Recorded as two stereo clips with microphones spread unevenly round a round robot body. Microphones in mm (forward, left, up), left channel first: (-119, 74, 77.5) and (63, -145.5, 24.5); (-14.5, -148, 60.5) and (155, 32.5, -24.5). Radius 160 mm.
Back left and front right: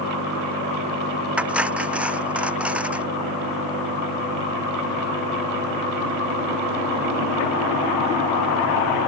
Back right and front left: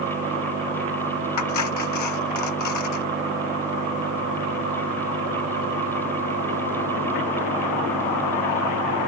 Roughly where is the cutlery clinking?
Behind right.